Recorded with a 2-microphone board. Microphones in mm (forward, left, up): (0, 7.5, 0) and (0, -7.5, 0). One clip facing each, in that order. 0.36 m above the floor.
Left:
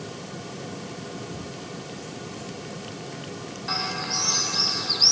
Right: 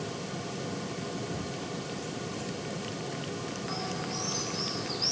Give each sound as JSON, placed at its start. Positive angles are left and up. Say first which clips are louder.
{"t": 1.3, "sound": "a cupboard door", "louder": "even", "side_deg": -20, "distance_m": 5.5}
{"t": 3.7, "sound": "a bird", "louder": "left 10 dB", "side_deg": 45, "distance_m": 0.7}